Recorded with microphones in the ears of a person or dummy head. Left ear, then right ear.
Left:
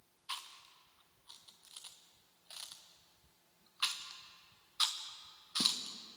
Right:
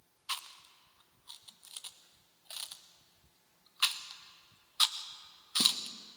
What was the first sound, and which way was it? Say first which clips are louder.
Chewing: right 5 dB; 15° right (ahead or behind).